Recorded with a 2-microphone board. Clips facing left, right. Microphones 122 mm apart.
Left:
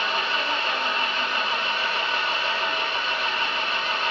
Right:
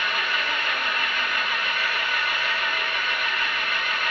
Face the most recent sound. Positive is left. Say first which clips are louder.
# left 2 dB
turn(degrees=30)  # may be behind; listen again after turning